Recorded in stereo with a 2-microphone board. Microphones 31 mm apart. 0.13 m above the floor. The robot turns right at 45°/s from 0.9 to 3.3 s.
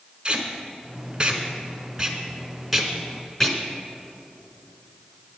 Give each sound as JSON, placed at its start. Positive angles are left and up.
{"t": 0.2, "sound": "tape being pulled", "side_deg": -25, "distance_m": 1.3}